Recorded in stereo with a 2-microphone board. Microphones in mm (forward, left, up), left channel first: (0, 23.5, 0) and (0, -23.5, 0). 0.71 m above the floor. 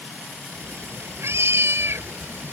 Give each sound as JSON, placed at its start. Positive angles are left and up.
{"t": 0.5, "sound": "a cat meowing", "side_deg": -70}